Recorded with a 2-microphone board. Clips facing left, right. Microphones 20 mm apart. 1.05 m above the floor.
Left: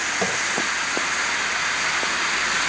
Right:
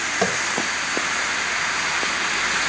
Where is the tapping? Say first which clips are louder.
Right 4 dB; 15° right (ahead or behind), 1.6 m.